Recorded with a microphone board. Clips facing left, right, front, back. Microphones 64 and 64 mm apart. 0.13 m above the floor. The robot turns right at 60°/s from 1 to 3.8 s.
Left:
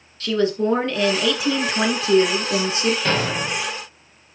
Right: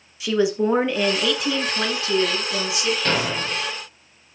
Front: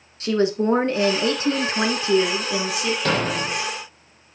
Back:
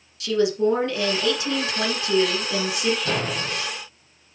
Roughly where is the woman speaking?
Ahead.